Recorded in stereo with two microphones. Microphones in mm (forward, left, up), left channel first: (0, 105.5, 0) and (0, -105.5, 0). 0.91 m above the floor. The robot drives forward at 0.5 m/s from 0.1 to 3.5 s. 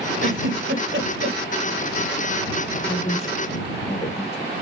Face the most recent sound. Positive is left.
turn(degrees=25)  # may be behind; listen again after turning